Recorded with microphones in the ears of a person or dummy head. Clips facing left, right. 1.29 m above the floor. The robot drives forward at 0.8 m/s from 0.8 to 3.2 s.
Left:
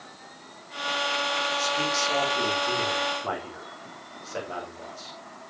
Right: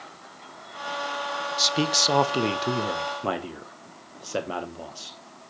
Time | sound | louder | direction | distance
1.6 | a man speaking | right 6 dB | 55° right (ahead or behind) | 1.1 m